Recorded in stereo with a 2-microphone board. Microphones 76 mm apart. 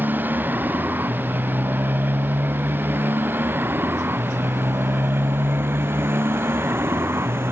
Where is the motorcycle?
25° right (ahead or behind); by 7.5 s 30° right (ahead or behind).